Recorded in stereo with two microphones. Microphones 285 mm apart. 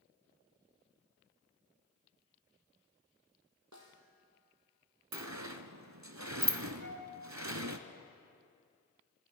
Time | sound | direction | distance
3.7 | a snare drum | 80° right | 2.0 m
5.1 | a sliding door | 75° right (ahead or behind) | 0.7 m
6.8 | a flute | 40° left (ahead or behind) | 2 m